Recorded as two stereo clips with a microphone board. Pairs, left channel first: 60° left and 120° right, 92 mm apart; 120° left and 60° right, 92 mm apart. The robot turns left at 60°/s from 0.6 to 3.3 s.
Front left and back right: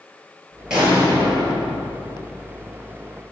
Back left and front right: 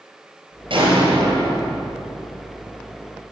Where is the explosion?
35° right, 4.5 m; by 1.8 s 100° right, 4.5 m.